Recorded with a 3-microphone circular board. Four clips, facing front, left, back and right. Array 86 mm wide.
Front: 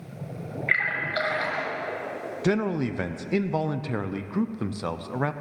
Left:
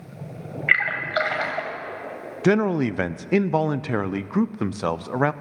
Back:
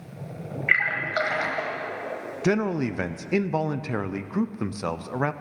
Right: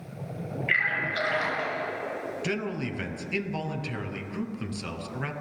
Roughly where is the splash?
Left.